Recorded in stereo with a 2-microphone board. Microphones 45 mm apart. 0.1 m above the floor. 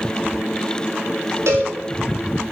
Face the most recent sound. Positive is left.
turn(degrees=-70)  # may be behind; listen again after turning